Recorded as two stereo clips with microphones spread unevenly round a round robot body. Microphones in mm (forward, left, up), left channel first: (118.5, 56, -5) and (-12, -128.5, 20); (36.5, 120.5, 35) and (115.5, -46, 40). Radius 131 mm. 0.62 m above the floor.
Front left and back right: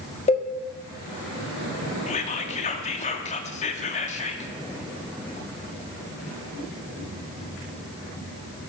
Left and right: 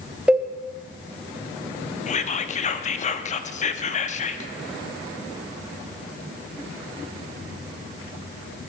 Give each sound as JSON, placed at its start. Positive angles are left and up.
{"t": 0.3, "sound": "a cowbell", "azimuth_deg": 20, "distance_m": 1.4}
{"t": 2.1, "sound": "whispering", "azimuth_deg": 95, "distance_m": 0.8}